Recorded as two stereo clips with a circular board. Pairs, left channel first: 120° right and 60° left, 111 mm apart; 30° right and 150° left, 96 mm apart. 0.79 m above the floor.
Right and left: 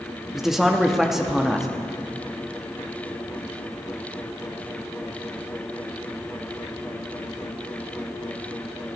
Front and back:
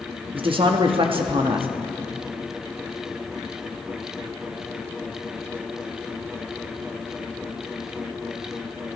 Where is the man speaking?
145° left, 1.0 m.